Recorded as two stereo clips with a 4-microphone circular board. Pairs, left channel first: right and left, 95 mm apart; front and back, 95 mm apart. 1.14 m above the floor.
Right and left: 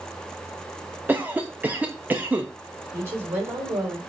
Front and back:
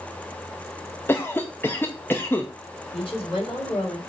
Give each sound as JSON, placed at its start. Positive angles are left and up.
{"t": 1.1, "sound": "a cough", "azimuth_deg": 40, "distance_m": 0.7}
{"t": 2.9, "sound": "a woman speaking", "azimuth_deg": 30, "distance_m": 4.0}